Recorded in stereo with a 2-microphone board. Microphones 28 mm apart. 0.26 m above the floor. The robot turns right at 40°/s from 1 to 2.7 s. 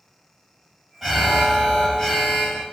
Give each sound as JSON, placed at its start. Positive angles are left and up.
{"t": 1.0, "sound": "an alarm", "side_deg": -5, "distance_m": 0.8}